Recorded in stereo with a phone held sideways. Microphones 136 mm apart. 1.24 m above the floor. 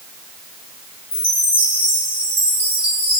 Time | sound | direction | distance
1.1 | a chime | 45° right (ahead or behind) | 3 m